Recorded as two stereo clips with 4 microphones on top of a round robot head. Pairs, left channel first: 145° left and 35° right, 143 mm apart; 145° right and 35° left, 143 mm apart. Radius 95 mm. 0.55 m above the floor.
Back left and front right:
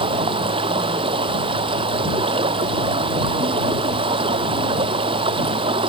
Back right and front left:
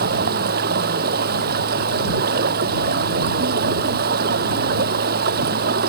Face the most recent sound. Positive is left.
turn(degrees=20)